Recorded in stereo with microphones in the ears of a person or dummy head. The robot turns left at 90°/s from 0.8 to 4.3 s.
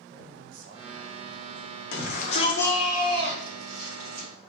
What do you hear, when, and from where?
0.1 s a man speaking: 65° right, 0.9 m; by 1.8 s 155° right, 0.9 m
1.9 s a shout: 80° left, 1.3 m; by 4.3 s 135° right, 1.3 m